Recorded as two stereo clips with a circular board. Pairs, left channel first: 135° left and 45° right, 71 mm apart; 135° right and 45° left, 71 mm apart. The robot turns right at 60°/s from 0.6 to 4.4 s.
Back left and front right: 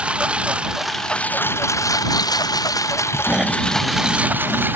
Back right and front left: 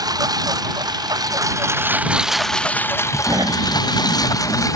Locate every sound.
0.0 s a lawn mower: 25° left; by 4.8 s 105° right
3.3 s snoring: 25° left; by 4.7 s 95° left